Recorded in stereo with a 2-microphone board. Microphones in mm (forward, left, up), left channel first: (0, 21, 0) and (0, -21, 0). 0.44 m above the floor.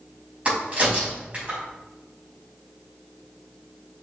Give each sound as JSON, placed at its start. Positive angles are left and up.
{"t": 0.5, "sound": "a crack", "side_deg": -30, "distance_m": 3.5}